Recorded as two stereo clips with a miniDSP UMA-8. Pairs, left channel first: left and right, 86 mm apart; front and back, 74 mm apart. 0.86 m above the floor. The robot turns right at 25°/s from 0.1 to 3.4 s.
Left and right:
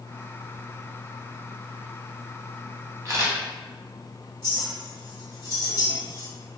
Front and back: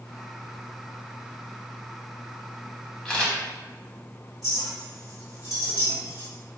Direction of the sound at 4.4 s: 30° right.